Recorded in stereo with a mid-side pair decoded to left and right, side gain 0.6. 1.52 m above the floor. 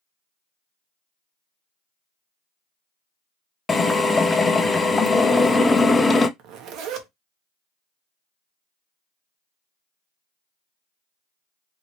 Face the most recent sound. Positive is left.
turn(degrees=-65)